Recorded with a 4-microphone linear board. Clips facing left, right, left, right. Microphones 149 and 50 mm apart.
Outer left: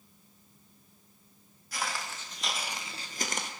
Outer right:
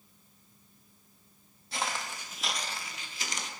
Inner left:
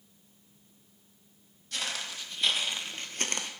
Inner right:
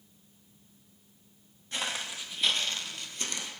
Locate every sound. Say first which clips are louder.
1.7 s footsteps: outer right 1 dB, inner right 1 dB; 25° right (ahead or behind), 0.9 m; by 3.5 s 60° left (ahead or behind), 0.6 m